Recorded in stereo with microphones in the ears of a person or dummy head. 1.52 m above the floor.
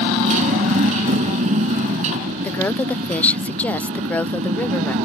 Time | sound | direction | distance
0.0 | a motorcycle | 40° right (ahead or behind) | ?
2.4 | a woman speaking | 10° left (ahead or behind) | ?